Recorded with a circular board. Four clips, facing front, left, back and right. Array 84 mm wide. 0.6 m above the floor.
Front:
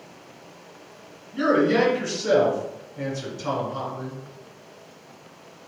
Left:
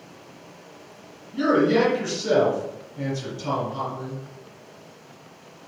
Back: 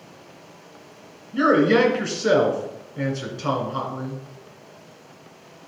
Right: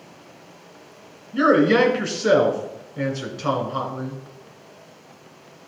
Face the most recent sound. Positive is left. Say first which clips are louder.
# right 3 dB, back 3 dB
turn(degrees=-115)